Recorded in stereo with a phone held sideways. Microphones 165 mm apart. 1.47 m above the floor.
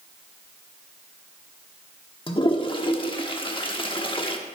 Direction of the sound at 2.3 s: 35° left (ahead or behind).